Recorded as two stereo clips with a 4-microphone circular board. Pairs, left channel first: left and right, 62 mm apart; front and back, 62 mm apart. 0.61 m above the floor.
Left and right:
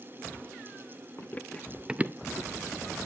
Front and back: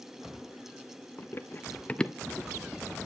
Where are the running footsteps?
40° left, 1.0 m; by 2.8 s 105° right, 1.2 m.